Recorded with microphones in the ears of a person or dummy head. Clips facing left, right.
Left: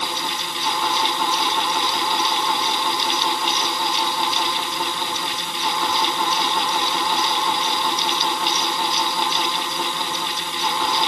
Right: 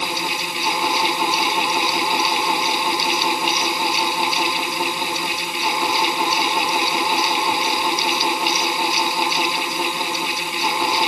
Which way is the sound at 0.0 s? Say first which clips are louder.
Right 2 dB; 10° right (ahead or behind).